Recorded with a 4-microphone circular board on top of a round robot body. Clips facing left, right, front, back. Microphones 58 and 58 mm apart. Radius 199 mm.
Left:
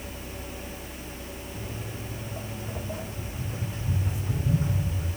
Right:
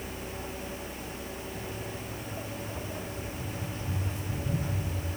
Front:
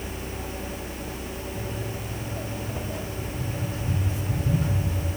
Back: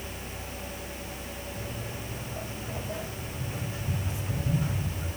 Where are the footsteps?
115° left, 4 m; by 5.1 s 105° left, 6 m.